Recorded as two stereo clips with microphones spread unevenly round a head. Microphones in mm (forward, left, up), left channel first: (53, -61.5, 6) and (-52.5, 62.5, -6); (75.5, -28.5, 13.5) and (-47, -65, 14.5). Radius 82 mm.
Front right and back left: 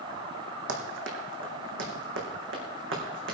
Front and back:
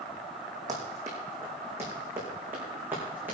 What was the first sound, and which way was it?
Running footsteps, 125° left.